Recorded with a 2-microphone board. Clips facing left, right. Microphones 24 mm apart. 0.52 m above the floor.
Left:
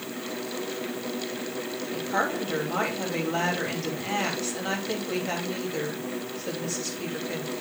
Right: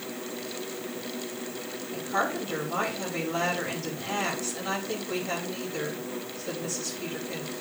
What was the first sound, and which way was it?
A woman speaking, 35° left (ahead or behind).